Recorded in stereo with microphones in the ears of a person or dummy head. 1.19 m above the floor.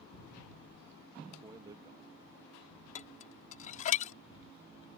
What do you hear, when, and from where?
1.4 s a man speaking: 20° right (ahead or behind); by 2.8 s 35° right (ahead or behind)
3.0 s dishes clattering: 45° left (ahead or behind)